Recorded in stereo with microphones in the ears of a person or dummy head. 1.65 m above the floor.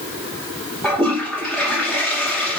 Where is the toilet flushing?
5° left (ahead or behind), 2.5 m.